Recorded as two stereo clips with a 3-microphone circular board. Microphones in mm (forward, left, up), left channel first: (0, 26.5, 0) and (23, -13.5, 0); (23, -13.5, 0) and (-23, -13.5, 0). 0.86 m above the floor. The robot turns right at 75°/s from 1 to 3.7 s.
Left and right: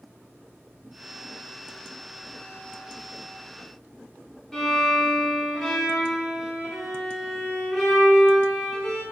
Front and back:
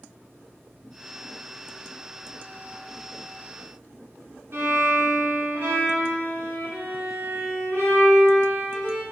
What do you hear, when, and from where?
4.5 s a violin: 160° right, 0.8 m